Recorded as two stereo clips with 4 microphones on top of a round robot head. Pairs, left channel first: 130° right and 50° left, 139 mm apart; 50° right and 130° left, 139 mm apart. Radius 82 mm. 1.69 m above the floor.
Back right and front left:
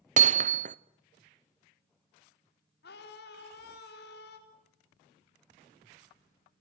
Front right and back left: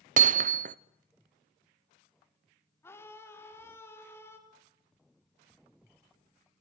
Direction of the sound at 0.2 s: 90° left.